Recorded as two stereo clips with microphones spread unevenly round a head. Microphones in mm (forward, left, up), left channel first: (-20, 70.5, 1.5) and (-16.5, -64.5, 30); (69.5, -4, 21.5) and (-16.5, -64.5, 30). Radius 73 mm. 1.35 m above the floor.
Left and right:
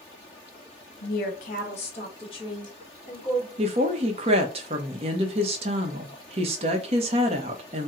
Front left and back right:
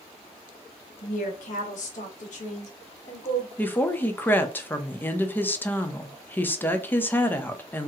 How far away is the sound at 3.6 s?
About 0.8 m.